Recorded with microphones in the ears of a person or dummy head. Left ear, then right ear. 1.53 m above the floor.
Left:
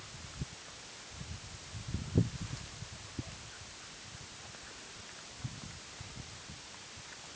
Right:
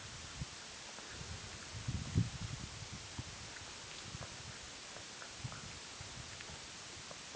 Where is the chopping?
No chopping in this recording.